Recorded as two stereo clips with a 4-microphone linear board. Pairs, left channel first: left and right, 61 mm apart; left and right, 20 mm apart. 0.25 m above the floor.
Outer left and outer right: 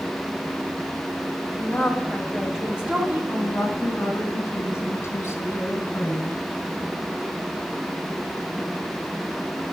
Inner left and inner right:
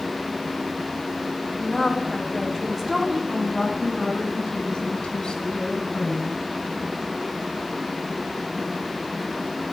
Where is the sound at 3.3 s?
40° left (ahead or behind), 1.6 m.